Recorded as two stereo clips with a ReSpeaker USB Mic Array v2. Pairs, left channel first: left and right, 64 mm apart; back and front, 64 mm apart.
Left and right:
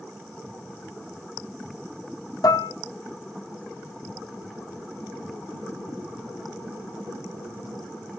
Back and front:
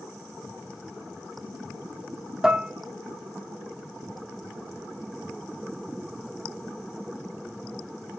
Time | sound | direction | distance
2.4 | dishes clattering | 80° left | 0.8 m